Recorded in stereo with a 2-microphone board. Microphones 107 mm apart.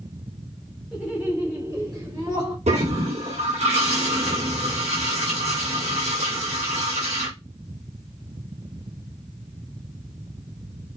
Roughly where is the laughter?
Centre.